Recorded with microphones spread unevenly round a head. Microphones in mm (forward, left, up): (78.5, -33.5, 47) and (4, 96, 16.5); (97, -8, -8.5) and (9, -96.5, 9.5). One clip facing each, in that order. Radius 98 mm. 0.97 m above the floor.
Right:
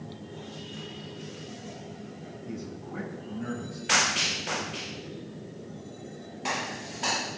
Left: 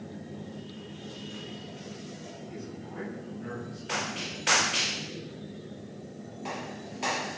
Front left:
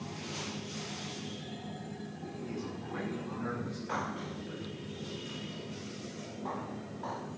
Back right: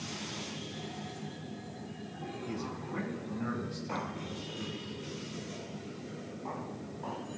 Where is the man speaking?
80° right, 9 m.